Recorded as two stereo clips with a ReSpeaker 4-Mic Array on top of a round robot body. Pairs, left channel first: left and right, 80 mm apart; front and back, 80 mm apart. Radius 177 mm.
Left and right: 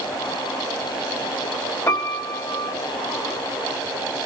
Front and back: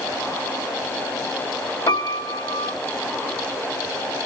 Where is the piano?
35° left, 1.2 m.